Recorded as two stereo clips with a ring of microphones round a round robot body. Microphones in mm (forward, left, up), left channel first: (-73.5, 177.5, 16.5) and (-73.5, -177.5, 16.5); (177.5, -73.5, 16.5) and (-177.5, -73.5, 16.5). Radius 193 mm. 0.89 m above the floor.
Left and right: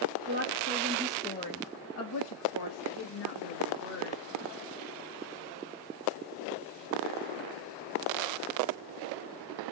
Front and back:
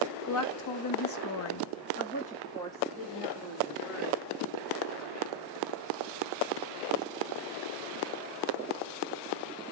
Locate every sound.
0.2 s a woman speaking: 35° right, 1.1 m; by 4.2 s 95° left, 1.9 m